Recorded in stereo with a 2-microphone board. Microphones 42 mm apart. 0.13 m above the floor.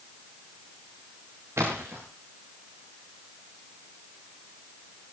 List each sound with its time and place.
1.6 s a splash: 85° right, 6 m